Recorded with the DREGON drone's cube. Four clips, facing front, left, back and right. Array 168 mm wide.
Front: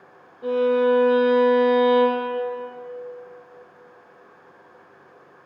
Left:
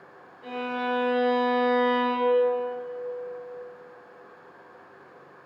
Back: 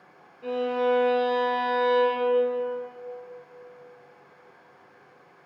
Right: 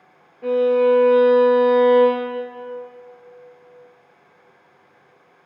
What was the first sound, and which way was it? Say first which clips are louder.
A violin: right 14 dB, front 6 dB; 60° right.